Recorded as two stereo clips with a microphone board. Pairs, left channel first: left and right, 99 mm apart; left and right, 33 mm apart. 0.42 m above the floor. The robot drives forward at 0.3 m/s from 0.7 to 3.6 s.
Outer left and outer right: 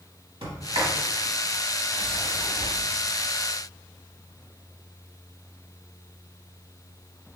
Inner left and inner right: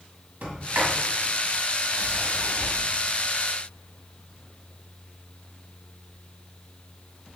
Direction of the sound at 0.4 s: 65° right (ahead or behind).